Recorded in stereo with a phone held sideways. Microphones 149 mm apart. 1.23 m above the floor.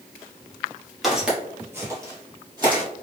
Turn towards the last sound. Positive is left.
turn(degrees=-25)  # may be behind; listen again after turning